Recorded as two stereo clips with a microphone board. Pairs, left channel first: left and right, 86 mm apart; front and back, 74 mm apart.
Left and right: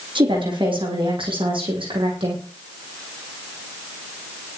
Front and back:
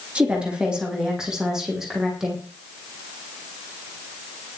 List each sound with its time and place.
0.1 s a woman speaking: 105° right, 7 m; by 2.4 s 95° right, 8 m